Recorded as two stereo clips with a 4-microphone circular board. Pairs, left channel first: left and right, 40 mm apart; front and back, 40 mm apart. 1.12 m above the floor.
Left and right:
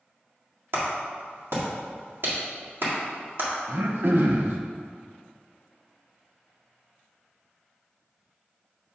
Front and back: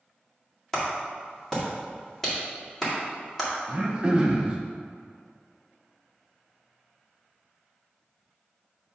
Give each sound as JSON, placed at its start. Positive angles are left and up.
{"t": 0.7, "sound": "a clap", "azimuth_deg": -75, "distance_m": 1.9}
{"t": 3.7, "sound": "throat clearing", "azimuth_deg": -110, "distance_m": 0.7}